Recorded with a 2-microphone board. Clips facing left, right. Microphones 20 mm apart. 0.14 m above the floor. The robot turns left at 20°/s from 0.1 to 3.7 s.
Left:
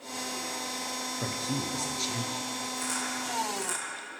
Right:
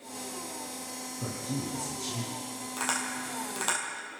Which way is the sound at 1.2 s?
55° left (ahead or behind).